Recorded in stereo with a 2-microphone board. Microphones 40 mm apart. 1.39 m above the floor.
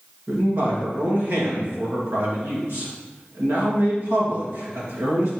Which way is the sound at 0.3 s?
70° right (ahead or behind).